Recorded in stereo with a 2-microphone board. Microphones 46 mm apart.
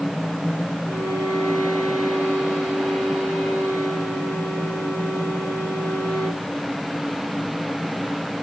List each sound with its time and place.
0.9 s a violin: 80° left, 4 m